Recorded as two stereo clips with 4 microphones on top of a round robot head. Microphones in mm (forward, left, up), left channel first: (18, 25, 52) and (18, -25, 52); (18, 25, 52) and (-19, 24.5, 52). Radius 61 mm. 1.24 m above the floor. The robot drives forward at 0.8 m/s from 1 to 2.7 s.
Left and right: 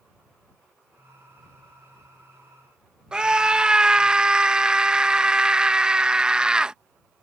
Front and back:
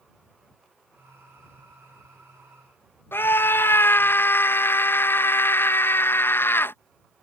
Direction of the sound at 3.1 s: 15° right.